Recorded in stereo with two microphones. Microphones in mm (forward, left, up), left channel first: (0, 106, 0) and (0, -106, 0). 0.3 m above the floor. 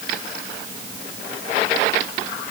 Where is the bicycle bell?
I don't hear a bicycle bell.